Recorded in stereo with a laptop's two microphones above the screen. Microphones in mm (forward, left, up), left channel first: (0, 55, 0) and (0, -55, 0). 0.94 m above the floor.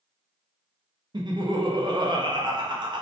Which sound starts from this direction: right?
Laughter, at 1.1 s.